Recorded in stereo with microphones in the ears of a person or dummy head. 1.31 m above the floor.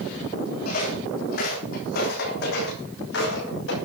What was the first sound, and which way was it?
Footsteps, 55° left (ahead or behind).